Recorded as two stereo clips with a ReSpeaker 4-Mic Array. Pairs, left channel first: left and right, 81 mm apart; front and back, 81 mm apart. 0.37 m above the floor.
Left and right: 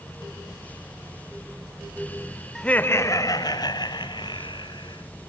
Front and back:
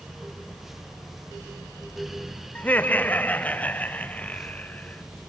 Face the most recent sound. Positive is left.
turn(degrees=75)